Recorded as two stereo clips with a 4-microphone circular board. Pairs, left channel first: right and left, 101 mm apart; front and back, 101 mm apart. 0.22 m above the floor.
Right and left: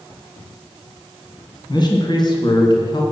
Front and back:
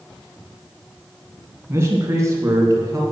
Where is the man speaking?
120° right, 2.5 m; by 3.0 s 125° right, 3.5 m.